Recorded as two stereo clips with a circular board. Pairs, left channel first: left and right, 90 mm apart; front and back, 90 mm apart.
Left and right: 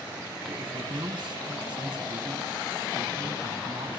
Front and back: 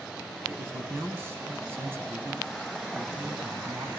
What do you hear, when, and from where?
0.5 s a man speaking: 115° right, 8.5 m